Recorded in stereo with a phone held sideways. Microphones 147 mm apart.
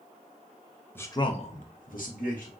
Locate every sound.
0.9 s a man speaking: 10° left (ahead or behind), 0.6 m; by 2.5 s 65° left (ahead or behind), 1.2 m